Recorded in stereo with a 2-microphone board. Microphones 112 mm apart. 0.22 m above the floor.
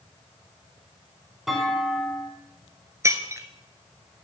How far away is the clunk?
About 1.9 m.